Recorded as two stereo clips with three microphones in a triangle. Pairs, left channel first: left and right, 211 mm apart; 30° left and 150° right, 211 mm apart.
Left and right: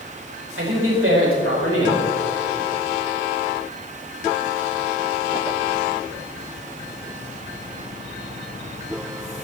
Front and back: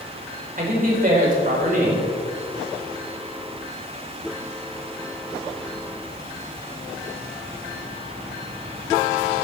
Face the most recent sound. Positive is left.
turn(degrees=-100)